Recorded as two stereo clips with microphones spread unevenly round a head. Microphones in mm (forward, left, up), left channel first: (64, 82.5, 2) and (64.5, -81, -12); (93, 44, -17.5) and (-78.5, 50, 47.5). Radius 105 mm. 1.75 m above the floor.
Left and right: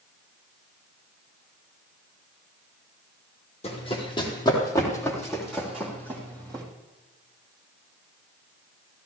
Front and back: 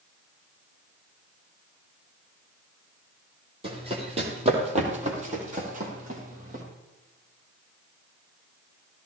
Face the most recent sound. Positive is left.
turn(degrees=-165)